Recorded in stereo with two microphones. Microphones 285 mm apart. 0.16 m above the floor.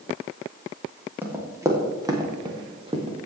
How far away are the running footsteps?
About 3.5 m.